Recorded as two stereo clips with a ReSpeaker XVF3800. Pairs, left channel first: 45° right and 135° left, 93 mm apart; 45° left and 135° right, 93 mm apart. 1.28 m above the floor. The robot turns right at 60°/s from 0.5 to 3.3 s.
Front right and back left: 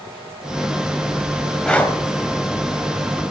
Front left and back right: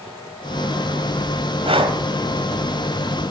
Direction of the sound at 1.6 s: 130° right.